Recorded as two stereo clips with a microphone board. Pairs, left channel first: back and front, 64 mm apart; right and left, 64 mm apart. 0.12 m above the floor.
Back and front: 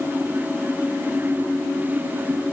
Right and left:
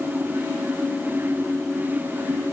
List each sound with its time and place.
Only background noise.